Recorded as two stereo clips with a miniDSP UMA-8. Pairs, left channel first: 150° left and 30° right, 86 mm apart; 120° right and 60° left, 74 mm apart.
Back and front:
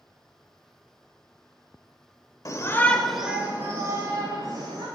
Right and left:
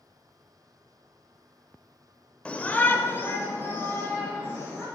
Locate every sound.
2.5 s a shout: 170° left, 1.2 m; by 4.8 s 60° right, 2.5 m